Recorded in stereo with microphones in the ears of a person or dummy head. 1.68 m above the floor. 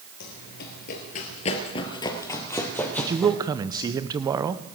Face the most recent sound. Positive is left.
turn(degrees=-20)  # may be behind; listen again after turning